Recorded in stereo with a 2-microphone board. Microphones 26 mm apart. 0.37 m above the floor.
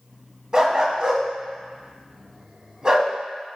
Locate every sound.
0.5 s a dog barking: 35° right (ahead or behind), 0.6 m